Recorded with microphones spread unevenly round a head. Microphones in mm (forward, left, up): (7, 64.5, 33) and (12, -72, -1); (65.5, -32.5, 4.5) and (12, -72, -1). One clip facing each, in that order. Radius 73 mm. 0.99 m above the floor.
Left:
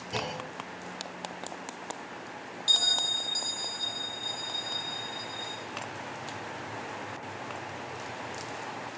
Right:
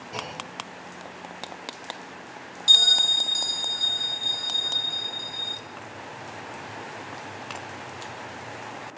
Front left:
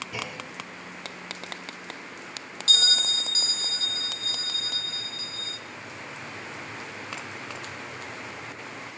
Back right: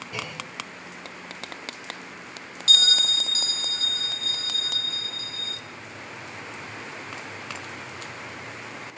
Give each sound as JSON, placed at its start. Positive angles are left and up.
{"t": 0.1, "sound": "a clunk", "azimuth_deg": 115, "distance_m": 0.9}
{"t": 2.7, "sound": "a bell", "azimuth_deg": -15, "distance_m": 2.5}